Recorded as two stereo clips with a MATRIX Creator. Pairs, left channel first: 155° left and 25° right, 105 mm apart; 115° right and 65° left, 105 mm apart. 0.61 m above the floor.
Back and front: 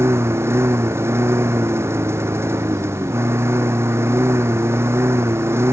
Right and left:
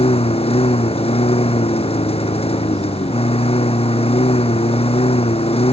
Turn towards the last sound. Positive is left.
turn(degrees=-90)